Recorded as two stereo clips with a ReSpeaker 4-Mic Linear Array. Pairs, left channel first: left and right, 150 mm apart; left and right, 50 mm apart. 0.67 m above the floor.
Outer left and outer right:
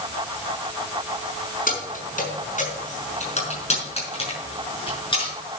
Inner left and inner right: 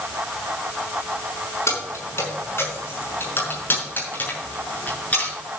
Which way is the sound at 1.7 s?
70° left (ahead or behind).